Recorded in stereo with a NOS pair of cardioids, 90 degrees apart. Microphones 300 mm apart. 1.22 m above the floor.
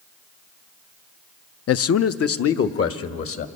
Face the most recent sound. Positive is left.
turn(degrees=45)